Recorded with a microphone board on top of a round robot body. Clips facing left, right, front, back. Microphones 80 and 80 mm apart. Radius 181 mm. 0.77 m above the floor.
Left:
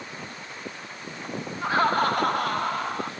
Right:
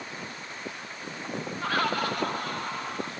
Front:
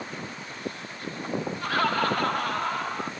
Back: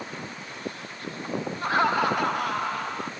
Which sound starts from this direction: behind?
Laughter, at 1.6 s.